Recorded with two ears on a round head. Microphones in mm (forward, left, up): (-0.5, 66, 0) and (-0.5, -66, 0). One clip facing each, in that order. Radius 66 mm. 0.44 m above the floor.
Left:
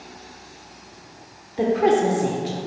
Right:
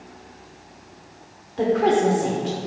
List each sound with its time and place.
1.6 s a woman speaking: 10° left (ahead or behind), 0.8 m